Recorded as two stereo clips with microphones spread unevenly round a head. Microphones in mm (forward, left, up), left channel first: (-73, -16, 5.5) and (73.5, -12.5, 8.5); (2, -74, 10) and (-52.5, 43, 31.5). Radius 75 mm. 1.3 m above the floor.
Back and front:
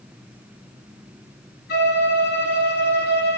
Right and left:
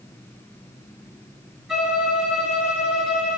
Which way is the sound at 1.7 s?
155° right.